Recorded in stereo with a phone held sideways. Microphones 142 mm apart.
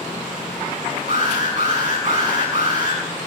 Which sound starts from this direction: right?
An alarm, at 1.1 s.